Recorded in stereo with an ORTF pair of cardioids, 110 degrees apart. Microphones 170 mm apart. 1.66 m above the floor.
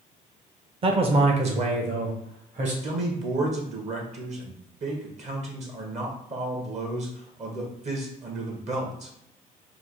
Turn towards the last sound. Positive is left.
turn(degrees=-45)